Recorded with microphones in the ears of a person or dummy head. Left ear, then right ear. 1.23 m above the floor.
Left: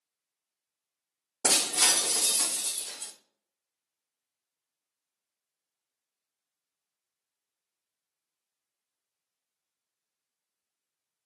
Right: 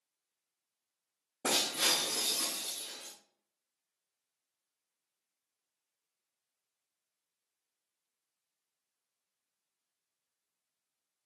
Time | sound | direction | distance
1.4 | breaking glass | 45° left (ahead or behind) | 0.7 m